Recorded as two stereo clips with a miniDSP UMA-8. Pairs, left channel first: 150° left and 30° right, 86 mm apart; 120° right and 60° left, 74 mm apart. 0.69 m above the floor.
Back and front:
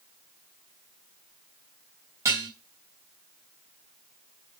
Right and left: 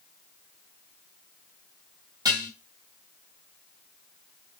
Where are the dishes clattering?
25° left, 2.5 m.